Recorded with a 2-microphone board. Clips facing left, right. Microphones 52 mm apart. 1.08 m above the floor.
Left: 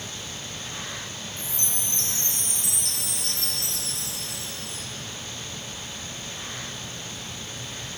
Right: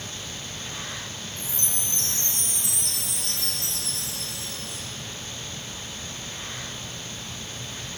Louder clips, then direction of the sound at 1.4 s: Even; 40° right (ahead or behind).